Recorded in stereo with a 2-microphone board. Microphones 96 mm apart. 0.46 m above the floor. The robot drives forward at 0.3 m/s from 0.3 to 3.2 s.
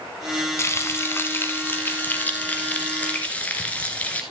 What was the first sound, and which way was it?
Frying, 30° left (ahead or behind).